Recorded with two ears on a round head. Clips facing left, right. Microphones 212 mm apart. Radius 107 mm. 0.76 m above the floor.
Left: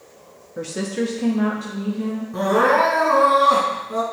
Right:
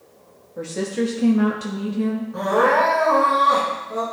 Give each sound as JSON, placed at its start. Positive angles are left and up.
{"t": 0.6, "sound": "a woman speaking", "side_deg": 20, "distance_m": 1.1}
{"t": 2.3, "sound": "crying", "side_deg": 35, "distance_m": 2.5}